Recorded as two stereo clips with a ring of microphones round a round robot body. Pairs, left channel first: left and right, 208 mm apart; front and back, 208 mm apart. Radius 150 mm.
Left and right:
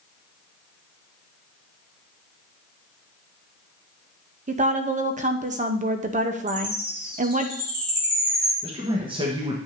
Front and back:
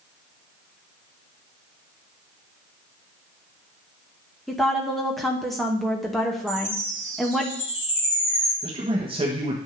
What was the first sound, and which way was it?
A woman speaking, 90° right.